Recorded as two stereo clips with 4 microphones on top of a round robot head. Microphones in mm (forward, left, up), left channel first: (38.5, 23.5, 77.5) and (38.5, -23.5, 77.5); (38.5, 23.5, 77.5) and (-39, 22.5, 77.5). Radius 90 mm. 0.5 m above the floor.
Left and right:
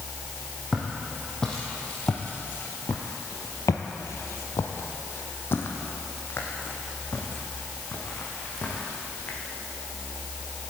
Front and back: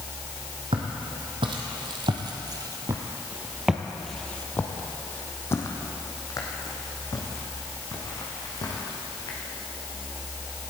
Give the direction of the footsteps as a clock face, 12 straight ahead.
6 o'clock.